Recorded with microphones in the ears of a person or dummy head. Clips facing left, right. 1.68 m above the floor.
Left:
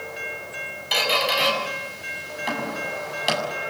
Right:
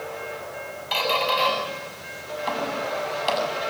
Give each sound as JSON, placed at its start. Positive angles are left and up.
{"t": 0.9, "sound": "a squeak", "side_deg": 15, "distance_m": 8.0}